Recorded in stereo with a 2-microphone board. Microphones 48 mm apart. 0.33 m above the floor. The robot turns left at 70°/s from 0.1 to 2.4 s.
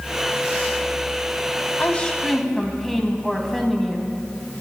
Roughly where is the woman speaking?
Ahead left.